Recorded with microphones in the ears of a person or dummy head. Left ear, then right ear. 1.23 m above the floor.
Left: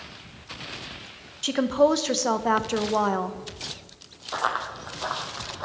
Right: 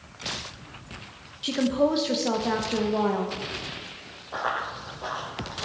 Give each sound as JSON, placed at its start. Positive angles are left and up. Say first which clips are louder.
{"t": 1.4, "sound": "a woman speaking", "louder": "left 3 dB", "side_deg": 40, "distance_m": 0.8}
{"t": 4.3, "sound": "running footsteps", "louder": "left 2 dB", "side_deg": 50, "distance_m": 2.0}